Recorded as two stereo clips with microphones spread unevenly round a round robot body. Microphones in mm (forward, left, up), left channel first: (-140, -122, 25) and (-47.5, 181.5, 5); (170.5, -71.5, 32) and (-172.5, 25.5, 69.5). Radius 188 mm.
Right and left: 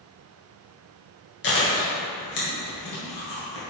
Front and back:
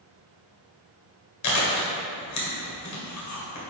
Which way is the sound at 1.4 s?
45° right.